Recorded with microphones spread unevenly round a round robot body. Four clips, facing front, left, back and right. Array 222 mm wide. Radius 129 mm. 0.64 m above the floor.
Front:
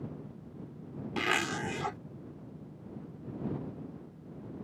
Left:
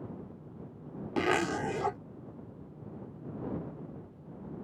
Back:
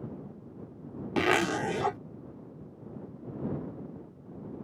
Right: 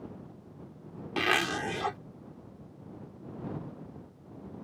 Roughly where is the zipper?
Behind.